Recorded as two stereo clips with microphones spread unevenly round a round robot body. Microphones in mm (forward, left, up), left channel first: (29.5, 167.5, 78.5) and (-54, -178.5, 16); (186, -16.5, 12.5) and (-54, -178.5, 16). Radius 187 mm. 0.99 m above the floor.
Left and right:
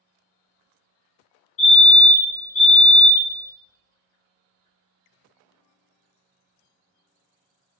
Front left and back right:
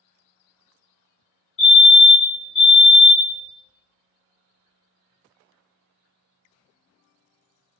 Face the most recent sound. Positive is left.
turn(degrees=60)